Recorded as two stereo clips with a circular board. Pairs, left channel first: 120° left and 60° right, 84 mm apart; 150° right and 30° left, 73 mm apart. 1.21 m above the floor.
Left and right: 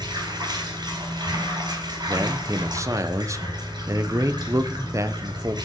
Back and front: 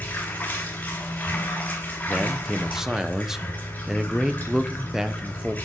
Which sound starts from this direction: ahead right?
A man speaking, at 2.1 s.